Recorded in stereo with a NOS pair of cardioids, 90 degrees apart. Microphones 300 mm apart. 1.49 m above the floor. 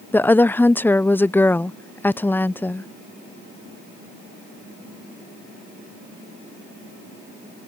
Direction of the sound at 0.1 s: 5° left.